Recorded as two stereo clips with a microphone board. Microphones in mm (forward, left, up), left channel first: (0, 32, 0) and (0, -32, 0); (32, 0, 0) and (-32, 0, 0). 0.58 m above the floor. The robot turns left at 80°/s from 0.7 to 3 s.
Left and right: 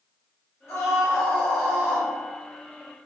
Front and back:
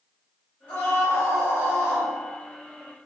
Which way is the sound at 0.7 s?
35° left.